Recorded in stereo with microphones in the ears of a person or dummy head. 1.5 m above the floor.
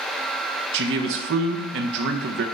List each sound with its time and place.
0.7 s a man speaking: 60° right (ahead or behind), 0.9 m